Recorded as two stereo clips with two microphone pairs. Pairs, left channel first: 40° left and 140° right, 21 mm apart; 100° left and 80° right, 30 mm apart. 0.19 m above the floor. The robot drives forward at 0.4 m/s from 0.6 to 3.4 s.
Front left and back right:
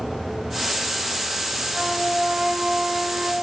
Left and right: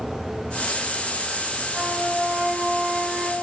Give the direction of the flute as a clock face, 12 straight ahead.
4 o'clock.